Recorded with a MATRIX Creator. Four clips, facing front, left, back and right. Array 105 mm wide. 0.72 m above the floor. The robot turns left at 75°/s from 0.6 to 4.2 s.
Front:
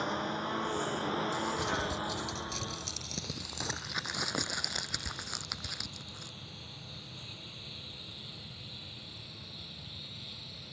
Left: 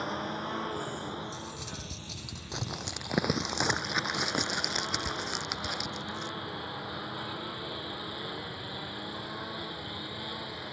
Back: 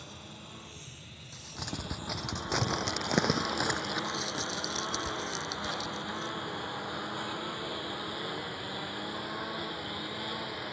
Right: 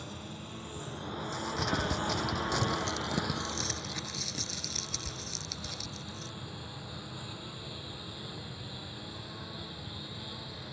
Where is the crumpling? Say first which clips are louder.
Right 8 dB, front 10 dB; 75° right; by 6.3 s 70° left.